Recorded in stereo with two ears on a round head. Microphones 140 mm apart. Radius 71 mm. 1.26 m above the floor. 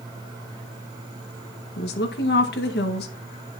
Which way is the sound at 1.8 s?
75° left (ahead or behind).